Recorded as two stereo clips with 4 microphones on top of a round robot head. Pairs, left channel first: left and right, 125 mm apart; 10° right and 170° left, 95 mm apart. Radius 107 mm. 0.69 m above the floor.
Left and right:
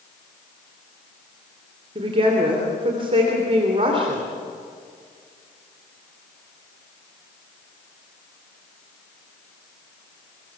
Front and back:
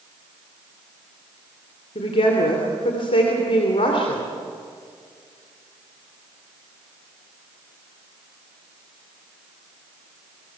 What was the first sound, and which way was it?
A woman speaking, 40° right.